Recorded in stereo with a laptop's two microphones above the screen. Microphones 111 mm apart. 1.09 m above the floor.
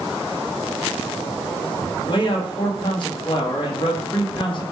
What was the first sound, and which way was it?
A man speaking, 45° left (ahead or behind).